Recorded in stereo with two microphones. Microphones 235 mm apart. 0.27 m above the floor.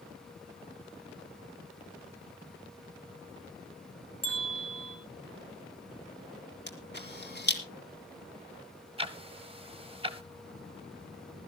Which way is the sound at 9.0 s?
25° right (ahead or behind).